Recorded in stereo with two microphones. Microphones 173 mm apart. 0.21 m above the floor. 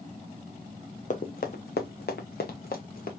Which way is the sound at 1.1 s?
50° left (ahead or behind).